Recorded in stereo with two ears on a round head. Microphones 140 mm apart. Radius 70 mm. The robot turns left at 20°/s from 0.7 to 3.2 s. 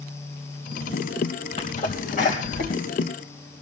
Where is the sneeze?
40° left (ahead or behind), 2.5 m; by 2.8 s 60° left (ahead or behind), 2.5 m.